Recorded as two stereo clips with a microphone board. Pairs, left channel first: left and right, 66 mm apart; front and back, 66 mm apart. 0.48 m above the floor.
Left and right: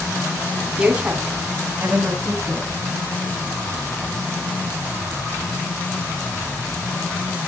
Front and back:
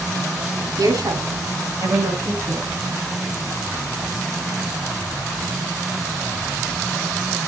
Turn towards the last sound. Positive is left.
turn(degrees=-145)